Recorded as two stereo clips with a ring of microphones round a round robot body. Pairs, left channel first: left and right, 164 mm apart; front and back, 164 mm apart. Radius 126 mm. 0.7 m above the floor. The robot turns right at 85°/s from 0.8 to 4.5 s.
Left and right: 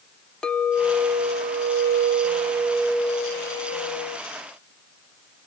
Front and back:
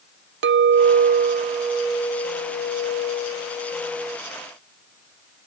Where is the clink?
175° left, 0.6 m; by 4.2 s 105° left, 0.6 m.